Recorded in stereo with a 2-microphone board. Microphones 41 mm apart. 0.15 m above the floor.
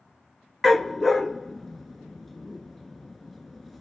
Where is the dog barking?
5° left (ahead or behind), 0.8 m.